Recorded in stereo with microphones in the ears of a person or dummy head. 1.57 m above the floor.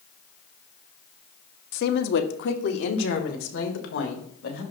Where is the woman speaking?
60° left (ahead or behind), 0.7 m; by 4.6 s 80° left, 2 m.